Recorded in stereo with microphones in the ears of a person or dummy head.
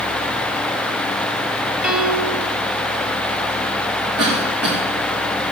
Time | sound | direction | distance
1.8 | a piano | 5° right (ahead or behind) | 2.5 m
4.2 | a cough | 80° right | 3.5 m